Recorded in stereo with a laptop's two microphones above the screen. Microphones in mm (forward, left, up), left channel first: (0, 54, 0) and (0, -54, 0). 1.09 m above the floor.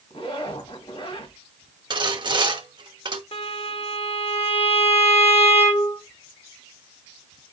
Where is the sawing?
45° right (ahead or behind), 0.9 m.